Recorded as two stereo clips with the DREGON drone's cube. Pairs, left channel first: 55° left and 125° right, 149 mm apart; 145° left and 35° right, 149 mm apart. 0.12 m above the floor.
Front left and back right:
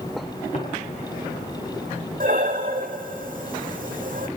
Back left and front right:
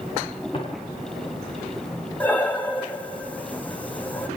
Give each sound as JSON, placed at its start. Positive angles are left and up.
{"t": 0.5, "sound": "footsteps", "azimuth_deg": 95, "distance_m": 5.0}
{"t": 2.2, "sound": "breathing", "azimuth_deg": -135, "distance_m": 1.0}